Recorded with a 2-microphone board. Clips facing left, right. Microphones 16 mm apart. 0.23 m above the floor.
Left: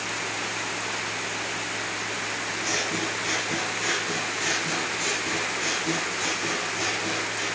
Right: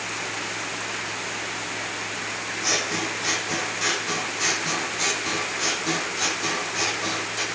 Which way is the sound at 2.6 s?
40° right (ahead or behind).